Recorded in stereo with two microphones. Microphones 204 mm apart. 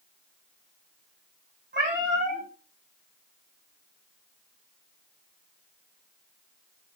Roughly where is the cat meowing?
Right.